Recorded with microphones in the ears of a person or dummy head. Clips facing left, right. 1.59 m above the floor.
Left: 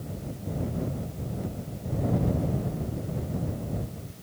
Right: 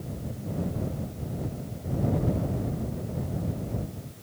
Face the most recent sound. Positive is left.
No sound to turn to.